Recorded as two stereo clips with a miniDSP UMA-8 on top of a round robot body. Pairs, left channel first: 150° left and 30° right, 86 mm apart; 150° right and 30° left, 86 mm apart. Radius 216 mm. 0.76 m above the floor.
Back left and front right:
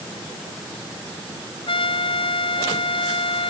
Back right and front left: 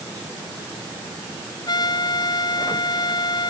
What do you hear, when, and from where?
1.7 s a trumpet: 170° left